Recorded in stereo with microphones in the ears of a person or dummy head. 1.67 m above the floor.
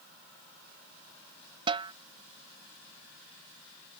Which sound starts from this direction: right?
A snare drum, at 1.7 s.